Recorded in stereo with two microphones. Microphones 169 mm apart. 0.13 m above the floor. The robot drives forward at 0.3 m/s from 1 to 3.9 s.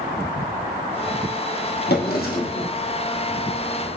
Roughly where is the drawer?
Left.